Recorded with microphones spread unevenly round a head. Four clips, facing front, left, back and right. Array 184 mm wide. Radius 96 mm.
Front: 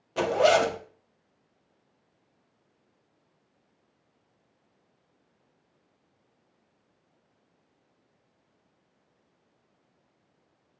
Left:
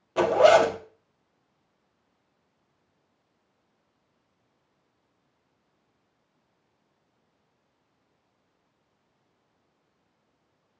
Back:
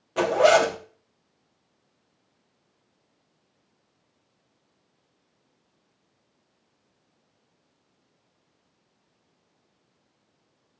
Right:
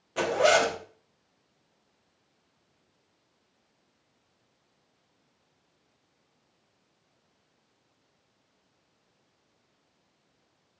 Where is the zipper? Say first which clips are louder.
Left 6 dB, back 3 dB; 130° left, 0.7 m.